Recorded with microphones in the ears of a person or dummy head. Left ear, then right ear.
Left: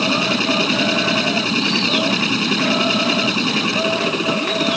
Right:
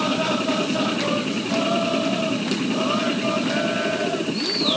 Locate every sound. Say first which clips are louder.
0.0 s a machine running: left 5 dB; 55° left (ahead or behind)